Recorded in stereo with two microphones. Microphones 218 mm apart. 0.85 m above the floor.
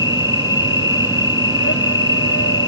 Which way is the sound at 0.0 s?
80° left.